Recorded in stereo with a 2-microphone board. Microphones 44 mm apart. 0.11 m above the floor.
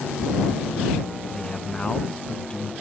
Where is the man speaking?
20° left (ahead or behind).